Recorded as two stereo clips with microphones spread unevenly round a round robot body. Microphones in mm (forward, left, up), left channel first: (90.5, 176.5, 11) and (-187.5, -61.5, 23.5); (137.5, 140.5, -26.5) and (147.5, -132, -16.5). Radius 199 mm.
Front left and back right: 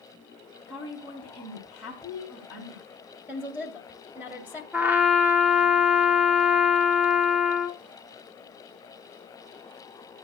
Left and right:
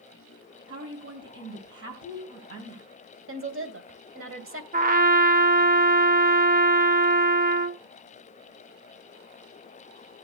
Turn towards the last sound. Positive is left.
turn(degrees=-55)